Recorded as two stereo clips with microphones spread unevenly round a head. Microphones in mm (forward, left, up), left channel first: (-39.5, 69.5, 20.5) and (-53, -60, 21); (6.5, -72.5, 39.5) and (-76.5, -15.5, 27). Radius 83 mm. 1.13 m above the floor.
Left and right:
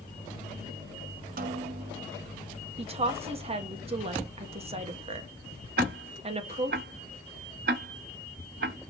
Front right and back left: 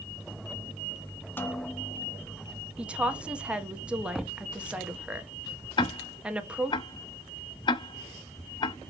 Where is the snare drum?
100° right, 0.9 m.